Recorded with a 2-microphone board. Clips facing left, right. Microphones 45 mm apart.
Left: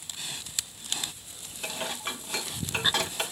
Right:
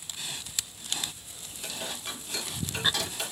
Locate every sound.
1.6 s dishes clattering: 45° left (ahead or behind), 1.1 m